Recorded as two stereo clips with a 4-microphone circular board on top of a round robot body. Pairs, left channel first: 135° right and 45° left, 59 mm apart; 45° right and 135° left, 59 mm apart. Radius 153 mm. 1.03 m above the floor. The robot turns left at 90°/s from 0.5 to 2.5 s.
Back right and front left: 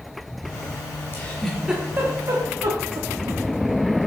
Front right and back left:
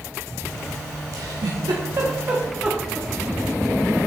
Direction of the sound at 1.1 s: 170° left.